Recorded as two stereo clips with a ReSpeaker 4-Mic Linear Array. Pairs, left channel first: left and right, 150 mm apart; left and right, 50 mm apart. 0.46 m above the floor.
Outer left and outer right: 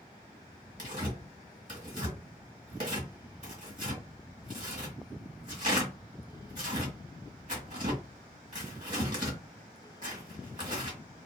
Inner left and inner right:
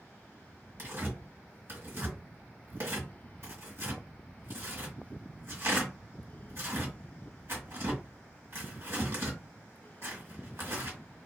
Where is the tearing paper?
60° right (ahead or behind), 1.6 m.